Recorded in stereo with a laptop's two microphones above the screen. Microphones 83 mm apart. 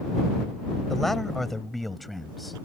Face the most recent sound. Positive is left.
turn(degrees=0)  # may be behind; listen again after turning